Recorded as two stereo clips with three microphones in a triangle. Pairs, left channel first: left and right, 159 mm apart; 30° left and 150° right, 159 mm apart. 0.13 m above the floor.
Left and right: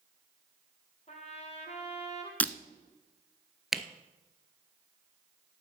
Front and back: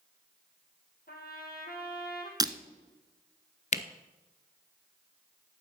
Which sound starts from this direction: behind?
Breaking glass, at 2.4 s.